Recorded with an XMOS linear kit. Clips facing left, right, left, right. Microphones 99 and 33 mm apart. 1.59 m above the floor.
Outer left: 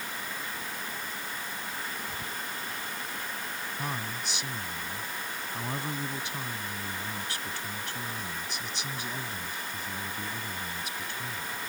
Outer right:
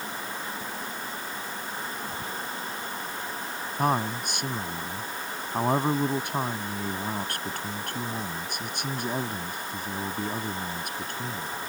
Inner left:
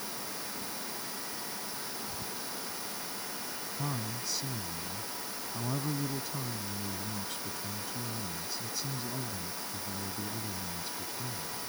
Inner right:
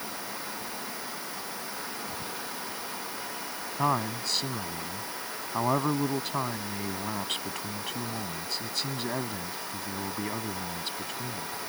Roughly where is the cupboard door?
I don't hear a cupboard door.